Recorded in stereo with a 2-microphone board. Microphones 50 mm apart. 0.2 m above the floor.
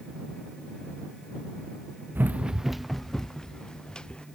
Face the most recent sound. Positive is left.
turn(degrees=20)  # may be behind; listen again after turning